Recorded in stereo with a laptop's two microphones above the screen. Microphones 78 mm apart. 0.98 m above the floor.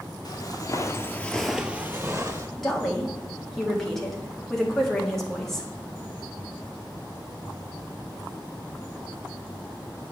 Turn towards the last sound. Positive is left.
turn(degrees=5)  # may be behind; listen again after turning